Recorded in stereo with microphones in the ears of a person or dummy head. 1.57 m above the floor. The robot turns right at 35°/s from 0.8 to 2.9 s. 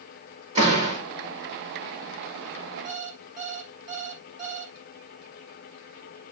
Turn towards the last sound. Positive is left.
turn(degrees=-40)  # may be behind; listen again after turning